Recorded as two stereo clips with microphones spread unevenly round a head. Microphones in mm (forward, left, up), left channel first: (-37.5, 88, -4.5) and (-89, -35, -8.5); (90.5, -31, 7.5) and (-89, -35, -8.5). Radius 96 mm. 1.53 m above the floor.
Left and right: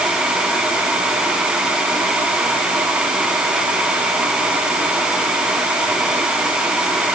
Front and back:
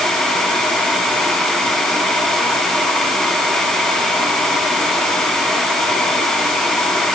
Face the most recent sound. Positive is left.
No sound to turn to.